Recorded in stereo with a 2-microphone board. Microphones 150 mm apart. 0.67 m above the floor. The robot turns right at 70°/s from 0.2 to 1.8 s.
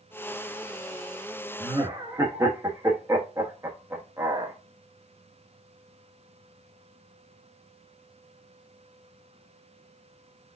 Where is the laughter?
25° right (ahead or behind), 0.8 m; by 4.5 s 20° right (ahead or behind), 0.8 m.